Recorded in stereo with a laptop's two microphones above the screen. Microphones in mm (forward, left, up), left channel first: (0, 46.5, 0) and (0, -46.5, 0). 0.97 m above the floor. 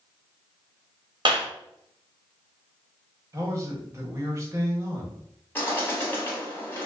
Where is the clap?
55° right (ahead or behind), 0.8 m.